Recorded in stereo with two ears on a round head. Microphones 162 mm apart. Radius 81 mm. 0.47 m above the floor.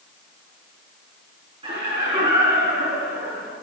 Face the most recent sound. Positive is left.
turn(degrees=-10)  # may be behind; listen again after turning